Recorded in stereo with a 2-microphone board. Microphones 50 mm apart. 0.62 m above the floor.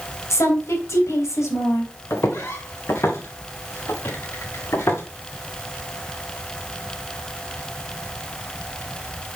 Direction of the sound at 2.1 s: 65° left (ahead or behind).